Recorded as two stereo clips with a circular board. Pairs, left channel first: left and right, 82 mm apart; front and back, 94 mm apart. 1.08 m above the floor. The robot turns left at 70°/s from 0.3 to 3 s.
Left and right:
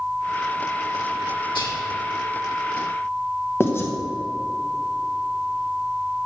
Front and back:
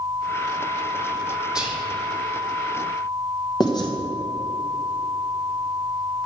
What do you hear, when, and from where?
1.6 s whispering: 100° left, 3 m; by 1.8 s 80° left, 3 m
3.6 s writing: 35° left, 1.1 m